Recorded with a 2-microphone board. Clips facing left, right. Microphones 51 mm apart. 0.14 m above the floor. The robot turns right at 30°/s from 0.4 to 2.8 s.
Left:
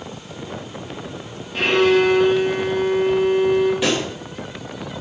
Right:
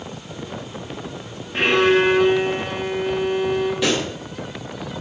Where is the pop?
10° left (ahead or behind), 2 m.